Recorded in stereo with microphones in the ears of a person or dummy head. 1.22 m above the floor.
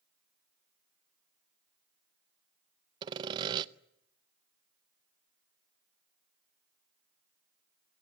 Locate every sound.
3.0 s sawing: 30° right (ahead or behind), 0.6 m